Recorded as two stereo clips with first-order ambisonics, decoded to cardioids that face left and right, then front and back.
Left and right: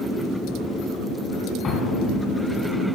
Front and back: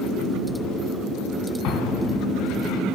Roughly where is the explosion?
Ahead left.